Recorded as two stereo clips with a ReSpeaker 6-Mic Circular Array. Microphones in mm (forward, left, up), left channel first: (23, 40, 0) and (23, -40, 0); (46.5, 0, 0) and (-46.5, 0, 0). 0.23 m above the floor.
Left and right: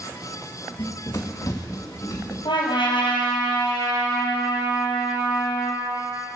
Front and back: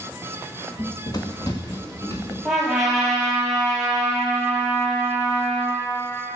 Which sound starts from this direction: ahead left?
Running footsteps, at 0.8 s.